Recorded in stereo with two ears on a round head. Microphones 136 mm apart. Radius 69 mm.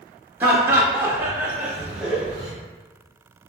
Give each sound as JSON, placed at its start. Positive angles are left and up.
{"t": 0.4, "sound": "laughter", "side_deg": -10, "distance_m": 0.8}